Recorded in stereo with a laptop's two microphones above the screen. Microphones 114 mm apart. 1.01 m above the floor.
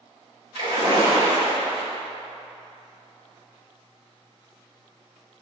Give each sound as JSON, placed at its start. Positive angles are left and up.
{"t": 0.6, "sound": "a splash", "side_deg": -55, "distance_m": 1.2}